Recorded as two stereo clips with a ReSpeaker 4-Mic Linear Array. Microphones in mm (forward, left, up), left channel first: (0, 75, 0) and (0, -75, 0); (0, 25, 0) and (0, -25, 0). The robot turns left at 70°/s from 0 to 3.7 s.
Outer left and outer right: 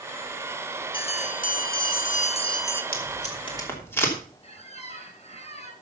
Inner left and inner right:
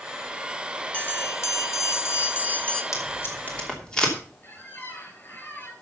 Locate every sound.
0.9 s a bell: 145° left, 1.0 m; by 2.8 s 15° left, 1.0 m
2.9 s tape being pulled: 70° left (ahead or behind), 3 m; by 4.2 s 15° left (ahead or behind), 3 m
4.4 s a squeak: 40° left (ahead or behind), 2.5 m